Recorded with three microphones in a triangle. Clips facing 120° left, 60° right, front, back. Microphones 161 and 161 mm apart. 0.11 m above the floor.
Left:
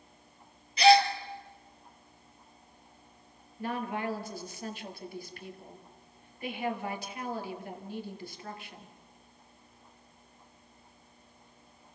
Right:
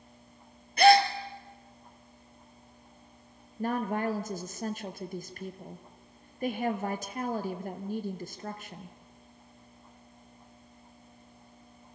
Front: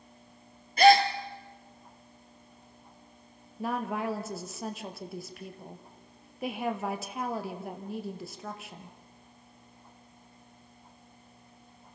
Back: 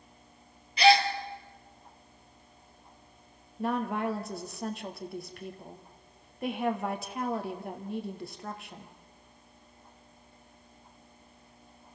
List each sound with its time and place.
0.8 s a gasp: 35° right, 1.4 m
3.6 s a woman speaking: 90° right, 1.7 m